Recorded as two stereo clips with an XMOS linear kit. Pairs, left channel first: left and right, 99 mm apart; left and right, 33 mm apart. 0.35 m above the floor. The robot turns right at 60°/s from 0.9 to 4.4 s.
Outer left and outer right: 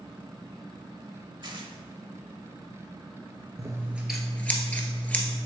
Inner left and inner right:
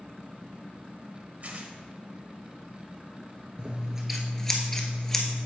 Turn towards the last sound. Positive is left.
turn(degrees=15)